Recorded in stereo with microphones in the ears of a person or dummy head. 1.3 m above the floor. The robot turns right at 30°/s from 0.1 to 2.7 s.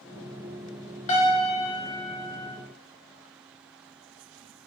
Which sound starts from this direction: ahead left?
A piano, at 1.1 s.